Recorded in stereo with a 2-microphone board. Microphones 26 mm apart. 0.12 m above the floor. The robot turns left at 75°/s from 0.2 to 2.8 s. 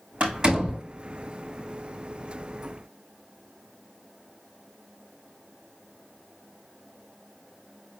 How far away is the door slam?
About 4.5 m.